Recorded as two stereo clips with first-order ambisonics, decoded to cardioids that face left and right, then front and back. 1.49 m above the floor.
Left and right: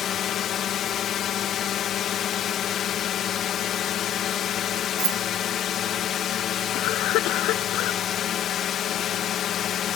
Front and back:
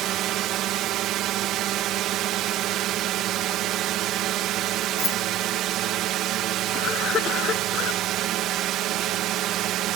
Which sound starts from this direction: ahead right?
Keys jangling, at 5.0 s.